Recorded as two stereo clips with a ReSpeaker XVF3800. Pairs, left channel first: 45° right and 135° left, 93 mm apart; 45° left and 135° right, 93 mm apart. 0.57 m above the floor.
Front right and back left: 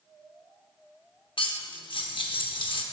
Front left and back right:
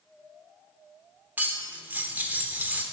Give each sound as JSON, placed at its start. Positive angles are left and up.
{"t": 1.4, "sound": "cutlery clinking", "azimuth_deg": -65, "distance_m": 0.7}